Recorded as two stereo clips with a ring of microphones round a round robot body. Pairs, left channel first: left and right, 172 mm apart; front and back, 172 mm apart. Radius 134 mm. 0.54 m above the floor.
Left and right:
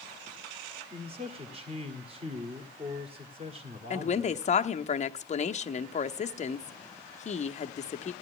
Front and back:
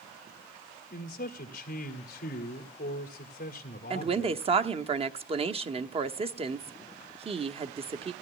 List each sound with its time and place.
0.9 s a man speaking: 35° right, 1.6 m
3.9 s a woman speaking: 130° left, 1.0 m